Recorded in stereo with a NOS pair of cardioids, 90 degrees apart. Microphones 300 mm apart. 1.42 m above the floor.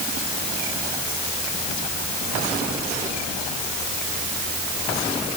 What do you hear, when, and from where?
Only background noise.